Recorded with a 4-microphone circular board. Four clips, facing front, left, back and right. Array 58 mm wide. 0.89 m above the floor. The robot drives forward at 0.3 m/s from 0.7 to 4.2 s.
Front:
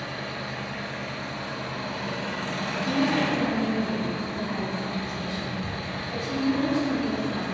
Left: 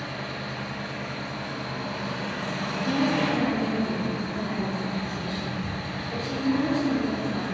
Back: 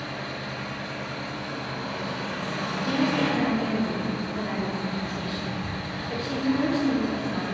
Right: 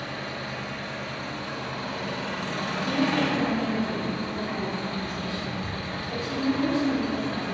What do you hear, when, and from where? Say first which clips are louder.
0.0 s an engine running: even, even; 40° right, 1.6 m; by 7.5 s 80° right, 1.1 m
2.9 s a woman speaking: left 1 dB, even; 175° left, 0.5 m; by 7.4 s straight behind, 0.8 m